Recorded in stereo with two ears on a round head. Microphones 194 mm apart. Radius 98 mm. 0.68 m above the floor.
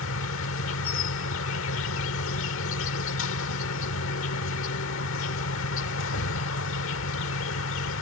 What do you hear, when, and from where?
0.0 s an insect: 65° left (ahead or behind)